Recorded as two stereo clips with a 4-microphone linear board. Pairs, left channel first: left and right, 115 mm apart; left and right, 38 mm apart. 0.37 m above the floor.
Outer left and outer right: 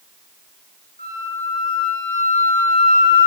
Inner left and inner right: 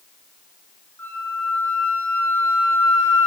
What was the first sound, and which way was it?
A flute, 80° left.